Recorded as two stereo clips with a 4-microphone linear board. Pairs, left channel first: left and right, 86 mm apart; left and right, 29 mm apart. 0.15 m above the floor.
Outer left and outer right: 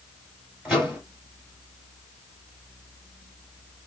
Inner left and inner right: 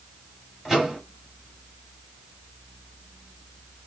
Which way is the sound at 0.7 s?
10° right (ahead or behind).